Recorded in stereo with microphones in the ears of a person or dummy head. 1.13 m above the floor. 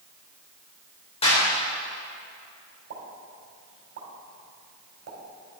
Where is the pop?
60° right (ahead or behind), 2.5 m.